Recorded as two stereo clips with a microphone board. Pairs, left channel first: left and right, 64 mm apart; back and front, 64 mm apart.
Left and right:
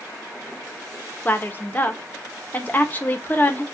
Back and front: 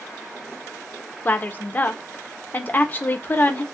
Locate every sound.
1.2 s a woman speaking: 135° left, 0.6 m